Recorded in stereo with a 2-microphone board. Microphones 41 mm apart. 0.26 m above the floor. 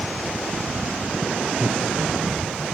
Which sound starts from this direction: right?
Laughter, at 1.6 s.